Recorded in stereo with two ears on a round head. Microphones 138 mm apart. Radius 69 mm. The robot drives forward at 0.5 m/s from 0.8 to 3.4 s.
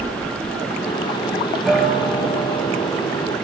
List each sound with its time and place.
1.6 s a guitar: centre (ahead or behind), 4 m